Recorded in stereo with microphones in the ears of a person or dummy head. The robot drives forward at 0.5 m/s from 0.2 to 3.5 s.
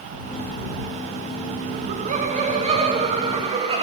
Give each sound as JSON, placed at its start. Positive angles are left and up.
{"t": 1.7, "sound": "laughter", "side_deg": -40, "distance_m": 1.6}